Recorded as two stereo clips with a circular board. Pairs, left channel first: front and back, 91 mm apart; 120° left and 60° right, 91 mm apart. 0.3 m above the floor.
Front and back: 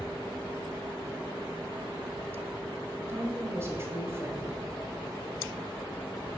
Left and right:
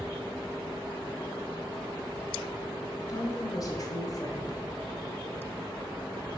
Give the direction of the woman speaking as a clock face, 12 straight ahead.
7 o'clock.